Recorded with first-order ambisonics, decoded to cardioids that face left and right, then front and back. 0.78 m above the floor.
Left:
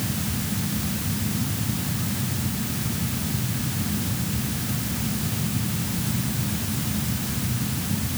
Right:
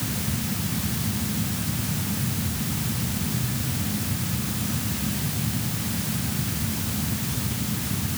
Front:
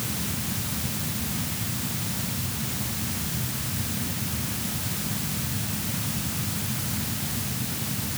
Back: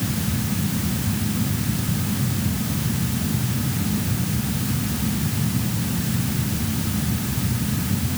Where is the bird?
I don't hear a bird.